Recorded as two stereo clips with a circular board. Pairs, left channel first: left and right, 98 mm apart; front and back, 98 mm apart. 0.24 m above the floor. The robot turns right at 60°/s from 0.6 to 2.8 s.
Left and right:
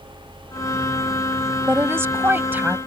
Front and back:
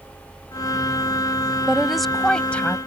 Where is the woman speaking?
110° right; by 2.8 s 45° right.